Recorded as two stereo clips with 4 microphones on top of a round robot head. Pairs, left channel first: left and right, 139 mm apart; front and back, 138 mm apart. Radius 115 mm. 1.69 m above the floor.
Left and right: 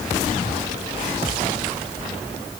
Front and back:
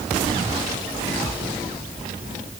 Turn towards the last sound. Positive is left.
No sound to turn to.